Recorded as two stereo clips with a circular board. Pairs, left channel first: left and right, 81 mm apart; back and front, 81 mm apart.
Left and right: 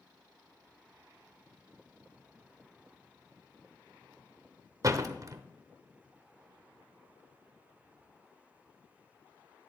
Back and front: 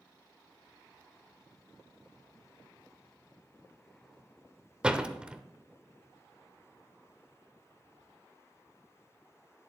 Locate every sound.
4.8 s a door slam: 75° right, 0.7 m